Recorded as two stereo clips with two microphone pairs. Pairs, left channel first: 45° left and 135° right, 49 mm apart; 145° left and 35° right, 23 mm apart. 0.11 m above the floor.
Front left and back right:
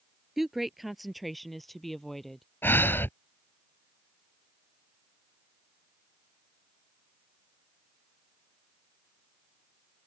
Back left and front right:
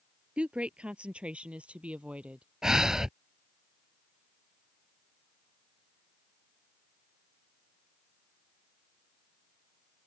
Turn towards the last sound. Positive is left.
turn(degrees=20)